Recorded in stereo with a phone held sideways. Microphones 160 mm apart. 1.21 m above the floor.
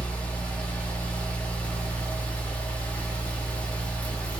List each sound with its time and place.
0.0 s a fan: 10° left (ahead or behind), 0.7 m